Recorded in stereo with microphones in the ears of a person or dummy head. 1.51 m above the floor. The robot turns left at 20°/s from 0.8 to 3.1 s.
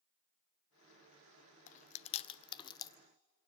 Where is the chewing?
40° left (ahead or behind), 0.6 m; by 3.0 s 20° left (ahead or behind), 0.6 m.